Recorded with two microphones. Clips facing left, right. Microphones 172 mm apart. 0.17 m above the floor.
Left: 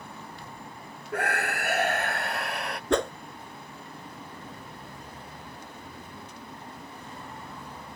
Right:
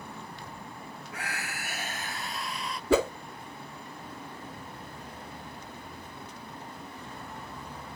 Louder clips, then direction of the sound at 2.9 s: Right 2 dB; 5° right (ahead or behind).